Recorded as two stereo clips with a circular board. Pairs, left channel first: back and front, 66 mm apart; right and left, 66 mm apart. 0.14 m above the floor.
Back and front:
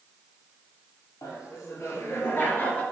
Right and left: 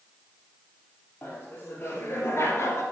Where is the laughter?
155° right, 3.5 m; by 2.8 s 115° right, 2.5 m.